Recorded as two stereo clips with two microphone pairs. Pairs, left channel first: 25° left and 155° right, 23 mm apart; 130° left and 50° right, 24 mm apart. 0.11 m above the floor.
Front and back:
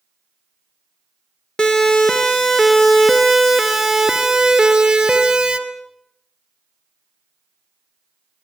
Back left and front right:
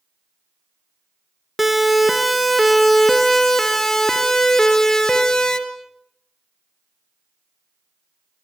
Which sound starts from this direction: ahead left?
A siren, at 1.6 s.